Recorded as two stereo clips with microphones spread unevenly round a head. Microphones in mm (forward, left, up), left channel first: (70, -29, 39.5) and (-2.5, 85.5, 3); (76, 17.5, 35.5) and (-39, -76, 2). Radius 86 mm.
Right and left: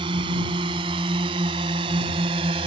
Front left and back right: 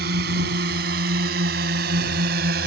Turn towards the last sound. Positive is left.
turn(degrees=-175)